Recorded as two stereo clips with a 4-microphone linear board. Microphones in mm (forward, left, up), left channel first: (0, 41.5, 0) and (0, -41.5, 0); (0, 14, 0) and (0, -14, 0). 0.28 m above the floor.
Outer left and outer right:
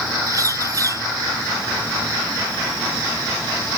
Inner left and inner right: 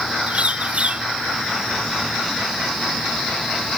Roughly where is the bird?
Right.